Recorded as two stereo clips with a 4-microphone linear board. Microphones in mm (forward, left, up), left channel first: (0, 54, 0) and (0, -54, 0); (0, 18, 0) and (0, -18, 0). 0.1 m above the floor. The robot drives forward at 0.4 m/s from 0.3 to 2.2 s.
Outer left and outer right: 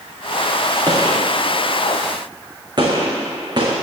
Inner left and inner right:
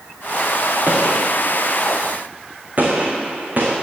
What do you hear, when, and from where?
0.9 s a gunshot: 35° right (ahead or behind), 3 m; by 3.7 s 40° right (ahead or behind), 2.5 m